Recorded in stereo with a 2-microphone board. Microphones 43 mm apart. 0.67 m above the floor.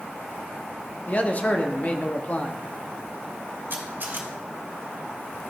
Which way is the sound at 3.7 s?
55° right (ahead or behind).